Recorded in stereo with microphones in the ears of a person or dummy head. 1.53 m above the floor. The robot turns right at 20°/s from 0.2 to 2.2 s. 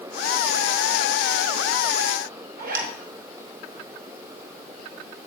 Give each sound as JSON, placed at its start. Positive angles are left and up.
{"t": 2.6, "sound": "a zipper", "side_deg": -55, "distance_m": 1.3}